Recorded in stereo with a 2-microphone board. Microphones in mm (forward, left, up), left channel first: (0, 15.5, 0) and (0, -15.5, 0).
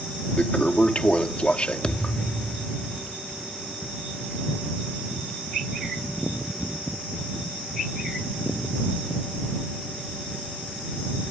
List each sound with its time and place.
0.4 s a toilet flushing: 35° left (ahead or behind)
1.8 s a thud: 30° left (ahead or behind)